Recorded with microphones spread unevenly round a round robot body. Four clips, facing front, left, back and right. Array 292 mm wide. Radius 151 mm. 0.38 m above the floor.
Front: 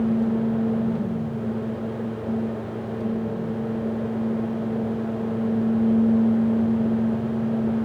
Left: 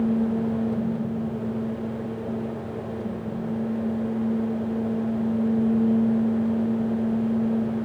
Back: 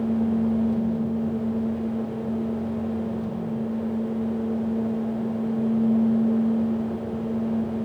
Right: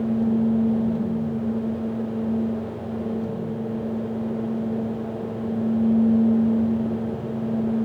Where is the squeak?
No squeak in this recording.